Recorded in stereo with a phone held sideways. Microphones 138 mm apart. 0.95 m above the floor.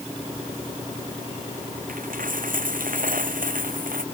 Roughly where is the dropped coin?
Right.